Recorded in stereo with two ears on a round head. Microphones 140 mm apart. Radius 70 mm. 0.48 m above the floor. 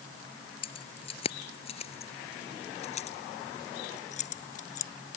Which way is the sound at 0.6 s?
35° left (ahead or behind).